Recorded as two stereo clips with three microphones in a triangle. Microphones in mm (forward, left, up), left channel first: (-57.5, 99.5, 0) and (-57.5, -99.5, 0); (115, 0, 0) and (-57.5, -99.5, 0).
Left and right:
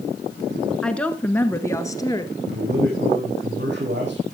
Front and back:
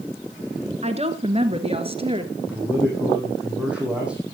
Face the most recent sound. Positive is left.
turn(degrees=-65)